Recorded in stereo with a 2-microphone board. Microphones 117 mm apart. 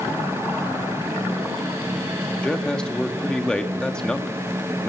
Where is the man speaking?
5° left (ahead or behind), 1.2 m.